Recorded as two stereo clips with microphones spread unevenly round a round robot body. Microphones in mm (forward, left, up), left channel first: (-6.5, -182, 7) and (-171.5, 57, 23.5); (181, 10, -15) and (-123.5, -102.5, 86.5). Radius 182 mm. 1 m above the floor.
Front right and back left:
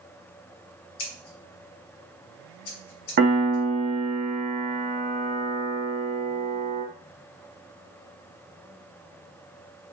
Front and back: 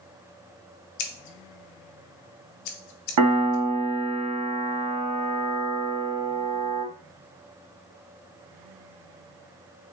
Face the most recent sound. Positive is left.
turn(degrees=170)